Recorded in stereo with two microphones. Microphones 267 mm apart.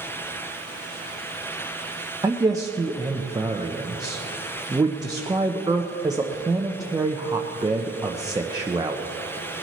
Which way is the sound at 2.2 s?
15° right (ahead or behind).